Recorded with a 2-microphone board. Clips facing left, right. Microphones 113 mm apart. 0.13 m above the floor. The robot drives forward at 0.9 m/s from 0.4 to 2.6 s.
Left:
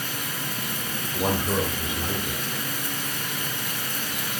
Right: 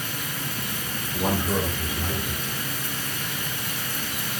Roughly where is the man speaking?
Centre.